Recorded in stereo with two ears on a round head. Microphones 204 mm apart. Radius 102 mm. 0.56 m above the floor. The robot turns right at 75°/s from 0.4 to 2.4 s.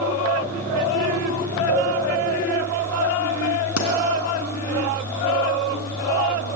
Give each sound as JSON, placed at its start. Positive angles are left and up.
{"t": 1.7, "sound": "a cowbell", "side_deg": 80, "distance_m": 4.5}
{"t": 3.8, "sound": "a pop", "side_deg": 75, "distance_m": 3.5}